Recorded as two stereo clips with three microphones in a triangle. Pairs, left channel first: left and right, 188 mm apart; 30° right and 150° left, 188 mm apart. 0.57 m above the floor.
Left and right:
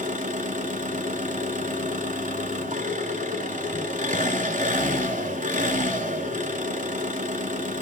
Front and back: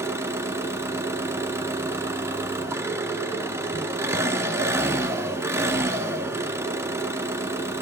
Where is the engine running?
135° right, 1.6 m.